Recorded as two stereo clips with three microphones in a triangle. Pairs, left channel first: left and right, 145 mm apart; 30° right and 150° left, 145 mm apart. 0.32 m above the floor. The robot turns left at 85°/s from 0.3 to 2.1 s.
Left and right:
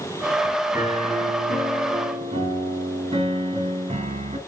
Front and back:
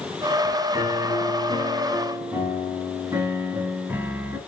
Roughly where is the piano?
Ahead right.